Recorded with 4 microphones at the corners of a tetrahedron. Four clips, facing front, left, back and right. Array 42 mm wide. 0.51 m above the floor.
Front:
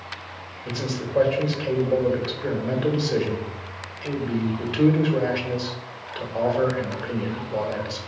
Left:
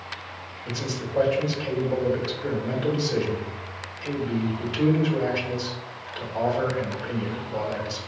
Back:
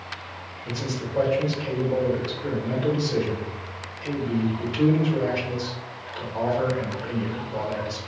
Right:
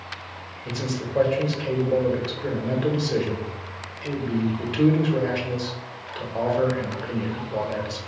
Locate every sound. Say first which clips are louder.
0.7 s a man speaking: right 2 dB, front 2 dB; 25° right, 1.2 m